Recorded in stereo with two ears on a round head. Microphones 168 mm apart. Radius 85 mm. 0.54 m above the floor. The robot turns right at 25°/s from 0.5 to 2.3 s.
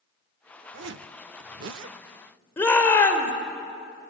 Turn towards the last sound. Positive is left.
turn(degrees=10)  # may be behind; listen again after turning